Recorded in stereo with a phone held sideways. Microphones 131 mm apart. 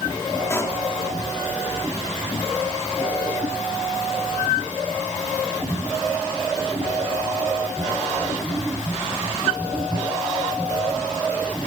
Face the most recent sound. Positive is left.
turn(degrees=20)  # may be behind; listen again after turning